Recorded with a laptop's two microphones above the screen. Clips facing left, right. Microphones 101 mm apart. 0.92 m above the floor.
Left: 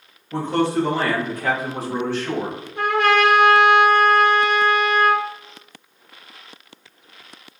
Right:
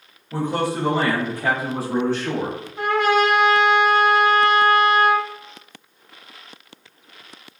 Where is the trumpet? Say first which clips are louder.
Left 1 dB; 60° left (ahead or behind), 0.6 m.